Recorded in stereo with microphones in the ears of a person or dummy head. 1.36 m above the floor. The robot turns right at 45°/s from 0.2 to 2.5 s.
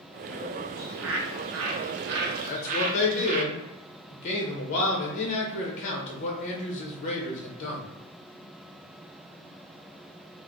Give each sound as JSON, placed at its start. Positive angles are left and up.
{"t": 0.8, "sound": "a bird", "azimuth_deg": -125, "distance_m": 0.6}
{"t": 2.4, "sound": "a man speaking", "side_deg": 40, "distance_m": 0.8}